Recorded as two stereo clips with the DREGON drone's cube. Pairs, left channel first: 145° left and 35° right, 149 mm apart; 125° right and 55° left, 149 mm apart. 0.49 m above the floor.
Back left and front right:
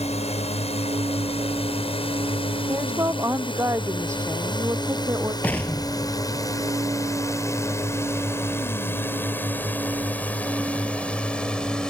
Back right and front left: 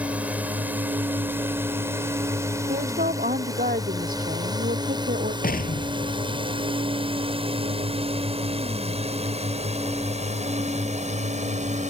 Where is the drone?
135° left; by 11.9 s 60° left.